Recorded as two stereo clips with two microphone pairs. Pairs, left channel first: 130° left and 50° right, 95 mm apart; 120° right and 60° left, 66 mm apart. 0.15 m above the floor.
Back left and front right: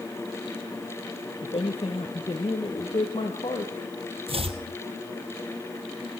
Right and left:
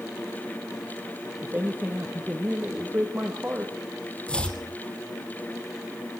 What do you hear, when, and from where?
1.4 s a man speaking: 120° left, 3.5 m
4.3 s chopping: 45° right, 2.5 m